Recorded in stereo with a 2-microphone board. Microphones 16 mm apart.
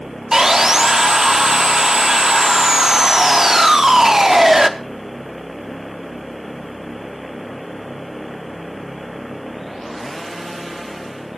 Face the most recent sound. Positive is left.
turn(degrees=-30)  # may be behind; listen again after turning